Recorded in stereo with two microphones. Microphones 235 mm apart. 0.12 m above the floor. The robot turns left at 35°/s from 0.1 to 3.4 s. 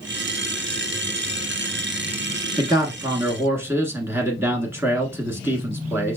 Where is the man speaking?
20° right (ahead or behind), 1.1 m; by 6.2 s 10° right (ahead or behind), 1.1 m.